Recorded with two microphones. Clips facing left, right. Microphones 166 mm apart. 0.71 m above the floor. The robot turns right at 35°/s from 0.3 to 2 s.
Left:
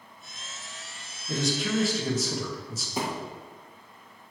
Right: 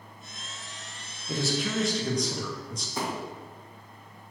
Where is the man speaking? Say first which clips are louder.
Left 1 dB; 5° right (ahead or behind), 0.6 m; by 2.9 s 5° left (ahead or behind), 0.6 m.